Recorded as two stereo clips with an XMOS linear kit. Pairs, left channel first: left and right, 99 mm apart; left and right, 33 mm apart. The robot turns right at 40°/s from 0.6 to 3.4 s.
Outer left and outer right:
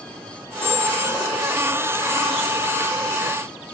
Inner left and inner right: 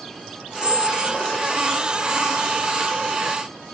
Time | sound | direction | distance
0.6 | a squeak | 40° left | ?